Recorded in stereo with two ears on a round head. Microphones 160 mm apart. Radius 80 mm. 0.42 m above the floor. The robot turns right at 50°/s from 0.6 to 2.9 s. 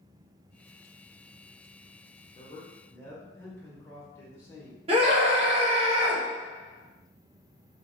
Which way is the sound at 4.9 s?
30° right (ahead or behind).